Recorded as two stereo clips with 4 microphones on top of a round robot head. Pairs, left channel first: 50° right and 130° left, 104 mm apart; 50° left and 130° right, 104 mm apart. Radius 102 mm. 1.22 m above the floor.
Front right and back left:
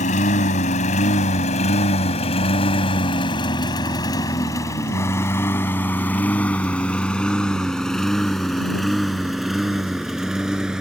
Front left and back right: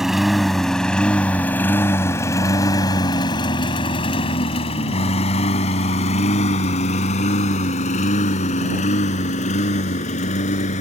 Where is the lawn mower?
45° right; by 10.8 s 45° left.